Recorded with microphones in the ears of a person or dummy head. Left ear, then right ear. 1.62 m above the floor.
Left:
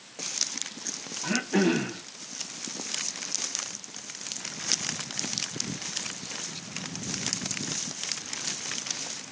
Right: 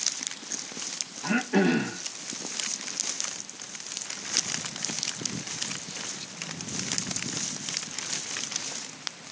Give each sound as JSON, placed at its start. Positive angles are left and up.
{"t": 1.2, "sound": "throat clearing", "side_deg": 0, "distance_m": 1.6}